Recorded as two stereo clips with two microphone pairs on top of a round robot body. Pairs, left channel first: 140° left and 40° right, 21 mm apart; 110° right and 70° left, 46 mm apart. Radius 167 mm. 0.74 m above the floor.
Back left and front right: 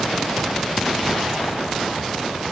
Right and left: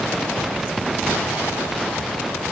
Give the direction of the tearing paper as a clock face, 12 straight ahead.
I don't hear tearing paper.